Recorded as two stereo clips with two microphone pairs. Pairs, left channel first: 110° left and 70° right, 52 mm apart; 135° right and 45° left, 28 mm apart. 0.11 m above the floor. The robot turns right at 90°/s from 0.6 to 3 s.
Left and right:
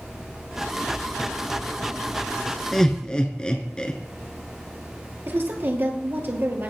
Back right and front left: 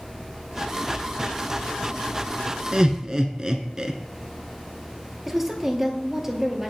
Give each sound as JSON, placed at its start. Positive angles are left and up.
{"t": 2.7, "sound": "laughter", "azimuth_deg": 35, "distance_m": 1.3}
{"t": 5.3, "sound": "a woman speaking", "azimuth_deg": -40, "distance_m": 2.5}